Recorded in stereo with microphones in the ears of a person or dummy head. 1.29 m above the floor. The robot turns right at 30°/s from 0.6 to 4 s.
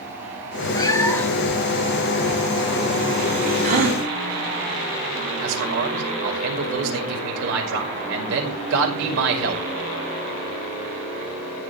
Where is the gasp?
50° right (ahead or behind), 2.0 m; by 4.0 s 60° right (ahead or behind), 2.0 m.